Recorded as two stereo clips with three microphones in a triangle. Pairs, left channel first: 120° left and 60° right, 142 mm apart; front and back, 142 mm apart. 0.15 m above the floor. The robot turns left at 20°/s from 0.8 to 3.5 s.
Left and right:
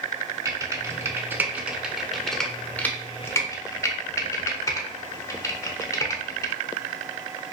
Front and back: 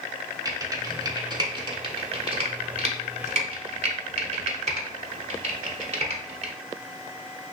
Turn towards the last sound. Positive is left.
turn(degrees=-175)